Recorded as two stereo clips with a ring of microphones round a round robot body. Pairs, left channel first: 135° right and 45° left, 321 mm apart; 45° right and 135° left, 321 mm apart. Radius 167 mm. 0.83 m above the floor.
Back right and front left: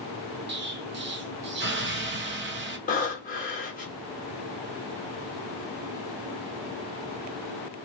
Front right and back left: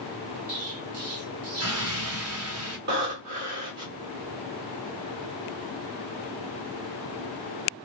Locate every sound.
0.5 s an explosion: 100° left, 1.1 m
2.9 s breathing: 165° left, 1.6 m